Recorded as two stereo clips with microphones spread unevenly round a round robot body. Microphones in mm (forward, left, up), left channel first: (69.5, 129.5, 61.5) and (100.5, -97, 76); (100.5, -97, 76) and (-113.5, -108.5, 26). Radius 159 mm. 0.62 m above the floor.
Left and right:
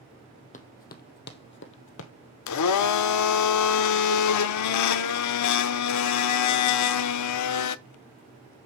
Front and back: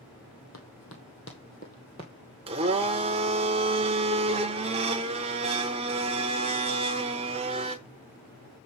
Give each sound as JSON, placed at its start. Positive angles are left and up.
{"t": 0.5, "sound": "running footsteps", "azimuth_deg": 40, "distance_m": 1.6}
{"t": 2.5, "sound": "a blender", "azimuth_deg": 110, "distance_m": 0.5}